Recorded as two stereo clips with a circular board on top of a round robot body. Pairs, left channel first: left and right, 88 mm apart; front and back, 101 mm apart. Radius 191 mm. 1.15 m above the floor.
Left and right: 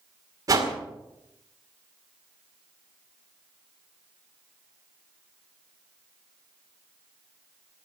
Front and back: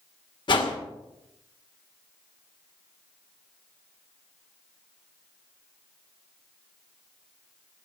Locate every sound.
0.5 s a whoosh: 40° right, 2.0 m